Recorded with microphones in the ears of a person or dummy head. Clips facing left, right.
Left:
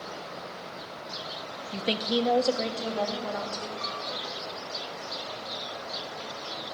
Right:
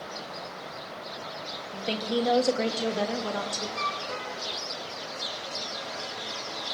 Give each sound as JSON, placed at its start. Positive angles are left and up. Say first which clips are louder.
{"t": 1.7, "sound": "a woman speaking", "louder": "left 1 dB", "side_deg": 30, "distance_m": 0.9}
{"t": 3.8, "sound": "a flute", "louder": "right 2 dB", "side_deg": -75, "distance_m": 3.0}